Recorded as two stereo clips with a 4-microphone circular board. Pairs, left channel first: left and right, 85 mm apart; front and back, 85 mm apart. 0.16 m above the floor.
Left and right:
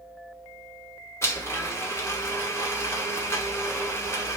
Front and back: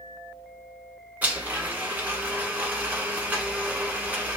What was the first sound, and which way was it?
A blender, 125° left.